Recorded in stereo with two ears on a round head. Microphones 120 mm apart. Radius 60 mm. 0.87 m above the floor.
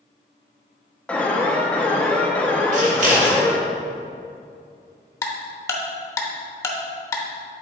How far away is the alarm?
About 0.7 m.